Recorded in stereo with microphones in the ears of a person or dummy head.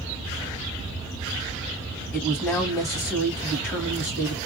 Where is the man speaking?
15° left (ahead or behind), 1.3 m.